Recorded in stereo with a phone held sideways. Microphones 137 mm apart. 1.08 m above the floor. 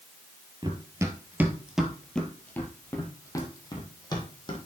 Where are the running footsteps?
30° right (ahead or behind), 1.3 m; by 4.6 s 35° left (ahead or behind), 2.5 m.